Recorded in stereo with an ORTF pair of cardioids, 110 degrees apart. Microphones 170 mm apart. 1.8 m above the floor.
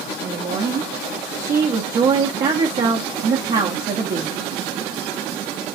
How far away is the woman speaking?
About 0.8 m.